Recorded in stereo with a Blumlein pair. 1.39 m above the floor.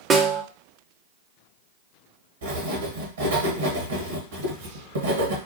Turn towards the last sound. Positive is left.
turn(degrees=-65)